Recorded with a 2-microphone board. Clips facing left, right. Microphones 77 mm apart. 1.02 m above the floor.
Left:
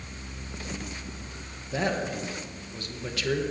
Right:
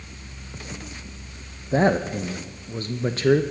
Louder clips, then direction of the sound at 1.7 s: Right 8 dB; 35° right (ahead or behind).